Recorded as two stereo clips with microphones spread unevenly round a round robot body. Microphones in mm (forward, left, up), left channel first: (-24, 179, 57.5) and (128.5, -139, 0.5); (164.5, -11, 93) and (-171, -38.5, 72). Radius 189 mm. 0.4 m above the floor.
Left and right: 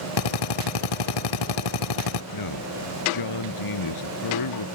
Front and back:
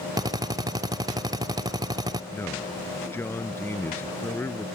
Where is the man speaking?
90° left.